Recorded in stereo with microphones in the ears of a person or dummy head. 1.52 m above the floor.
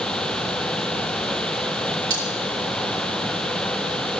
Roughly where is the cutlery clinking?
Centre.